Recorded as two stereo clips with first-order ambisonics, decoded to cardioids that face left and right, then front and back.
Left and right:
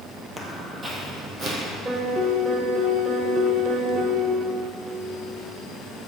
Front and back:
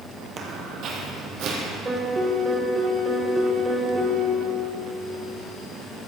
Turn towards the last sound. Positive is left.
turn(degrees=-135)